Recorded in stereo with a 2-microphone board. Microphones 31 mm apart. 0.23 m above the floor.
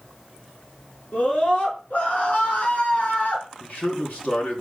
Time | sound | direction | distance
1.1 | a scream | 60° left (ahead or behind) | 3 m
3.6 | a man speaking | 60° left (ahead or behind) | 2.5 m